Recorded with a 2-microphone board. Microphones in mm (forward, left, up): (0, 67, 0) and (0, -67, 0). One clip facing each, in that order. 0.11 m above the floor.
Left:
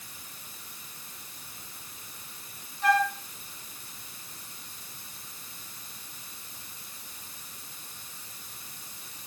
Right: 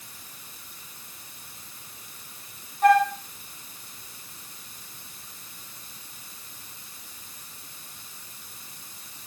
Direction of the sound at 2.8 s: 50° right (ahead or behind).